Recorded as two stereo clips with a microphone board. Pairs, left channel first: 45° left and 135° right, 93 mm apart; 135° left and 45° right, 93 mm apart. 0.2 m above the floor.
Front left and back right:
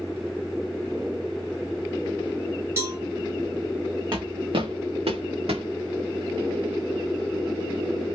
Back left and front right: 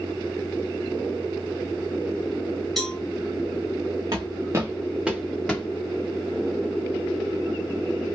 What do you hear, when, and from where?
2.8 s a cowbell: 140° right, 1.0 m
4.1 s footsteps: 85° right, 0.9 m; by 5.6 s 145° right, 1.0 m